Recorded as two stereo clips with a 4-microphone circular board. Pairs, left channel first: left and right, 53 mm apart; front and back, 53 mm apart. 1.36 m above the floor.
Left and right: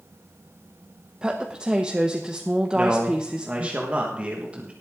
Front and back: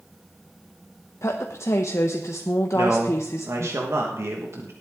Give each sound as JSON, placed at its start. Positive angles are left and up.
{"t": 1.2, "sound": "a woman speaking", "azimuth_deg": -20, "distance_m": 0.8}
{"t": 2.7, "sound": "a man speaking", "azimuth_deg": -155, "distance_m": 1.5}